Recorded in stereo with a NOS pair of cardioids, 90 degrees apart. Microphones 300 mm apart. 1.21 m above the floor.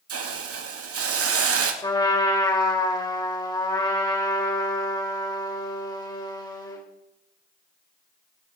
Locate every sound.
0.1 s a hiss: 50° right, 2 m
1.8 s a trumpet: 15° left, 3.5 m